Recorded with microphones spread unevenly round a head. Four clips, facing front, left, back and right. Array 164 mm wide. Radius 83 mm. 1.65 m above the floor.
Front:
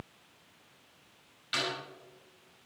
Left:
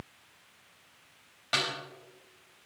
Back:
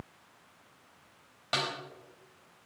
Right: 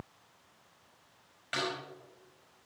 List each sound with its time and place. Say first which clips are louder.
1.5 s a snare drum: left 2 dB, back 2 dB; 150° left, 4 m